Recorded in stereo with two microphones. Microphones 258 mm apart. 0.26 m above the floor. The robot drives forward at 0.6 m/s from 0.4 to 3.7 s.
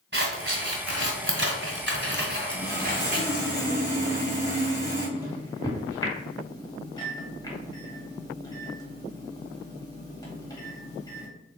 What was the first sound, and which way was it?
Scissors, 40° right (ahead or behind).